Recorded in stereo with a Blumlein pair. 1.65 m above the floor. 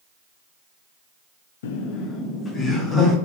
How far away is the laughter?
About 0.6 m.